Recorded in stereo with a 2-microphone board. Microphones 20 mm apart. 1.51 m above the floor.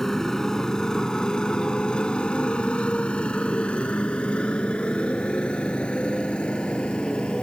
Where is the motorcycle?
30° left (ahead or behind); by 7.5 s 60° left (ahead or behind).